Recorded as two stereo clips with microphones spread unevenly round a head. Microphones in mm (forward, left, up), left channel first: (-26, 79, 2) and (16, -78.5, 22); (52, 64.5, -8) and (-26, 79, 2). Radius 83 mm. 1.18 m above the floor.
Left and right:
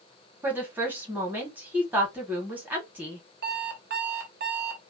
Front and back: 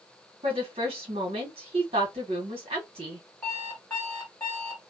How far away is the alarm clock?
About 0.8 m.